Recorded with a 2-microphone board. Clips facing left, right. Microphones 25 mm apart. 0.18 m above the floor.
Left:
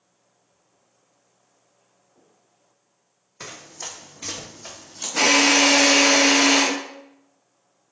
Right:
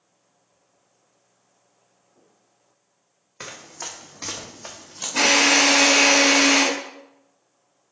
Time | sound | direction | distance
3.4 | running footsteps | 40° right (ahead or behind) | 1.0 m
5.2 | a drill | 30° right (ahead or behind) | 1.9 m